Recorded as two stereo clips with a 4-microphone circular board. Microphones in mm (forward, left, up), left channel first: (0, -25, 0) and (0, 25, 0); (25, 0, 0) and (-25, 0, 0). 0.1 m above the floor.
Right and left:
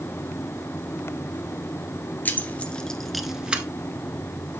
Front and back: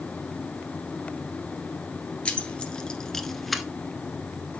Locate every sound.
2.2 s keys jangling: 60° right, 1.5 m; by 3.6 s 90° left, 1.1 m